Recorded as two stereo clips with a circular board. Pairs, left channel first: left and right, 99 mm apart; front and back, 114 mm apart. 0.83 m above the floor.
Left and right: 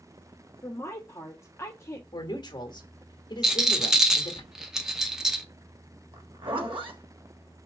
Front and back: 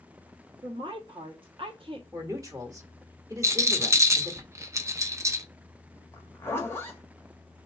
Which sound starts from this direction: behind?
A rattle, at 3.4 s.